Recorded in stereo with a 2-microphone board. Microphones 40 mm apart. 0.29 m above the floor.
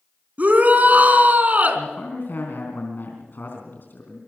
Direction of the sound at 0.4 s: 45° right (ahead or behind).